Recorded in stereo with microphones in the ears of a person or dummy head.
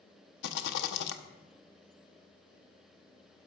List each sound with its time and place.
0.4 s a rattle: 60° left (ahead or behind), 0.8 m